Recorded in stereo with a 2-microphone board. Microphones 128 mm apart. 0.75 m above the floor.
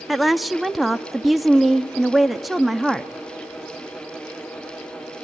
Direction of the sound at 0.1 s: Centre (ahead or behind).